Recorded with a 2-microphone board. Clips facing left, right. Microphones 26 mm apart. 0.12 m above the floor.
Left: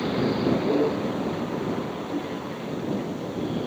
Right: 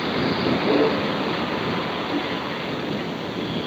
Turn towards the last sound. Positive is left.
turn(degrees=-55)  # may be behind; listen again after turning